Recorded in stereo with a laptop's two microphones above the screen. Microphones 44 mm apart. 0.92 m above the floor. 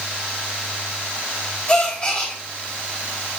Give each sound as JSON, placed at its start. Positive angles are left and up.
{"t": 1.7, "sound": "a gasp", "side_deg": 20, "distance_m": 3.5}